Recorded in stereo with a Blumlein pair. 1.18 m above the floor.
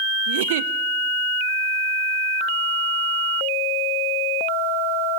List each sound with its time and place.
0.3 s a giggle: 55° right, 0.7 m